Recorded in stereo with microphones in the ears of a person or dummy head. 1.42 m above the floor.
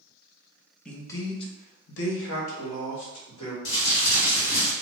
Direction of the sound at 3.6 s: 80° left.